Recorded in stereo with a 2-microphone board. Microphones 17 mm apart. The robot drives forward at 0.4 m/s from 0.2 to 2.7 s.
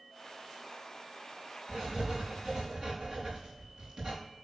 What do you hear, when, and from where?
1.7 s writing: 70° right (ahead or behind), 4 m; by 4.2 s 65° right (ahead or behind), 4.5 m